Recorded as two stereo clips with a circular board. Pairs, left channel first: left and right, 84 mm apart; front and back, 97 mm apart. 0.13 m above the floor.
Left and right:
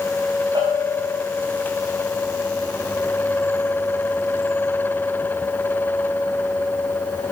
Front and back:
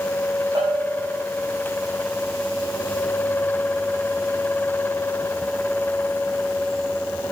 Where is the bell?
125° right, 7 m.